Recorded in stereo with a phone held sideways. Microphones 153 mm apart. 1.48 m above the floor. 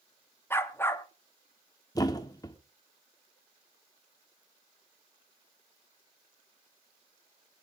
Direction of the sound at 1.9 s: 25° left (ahead or behind).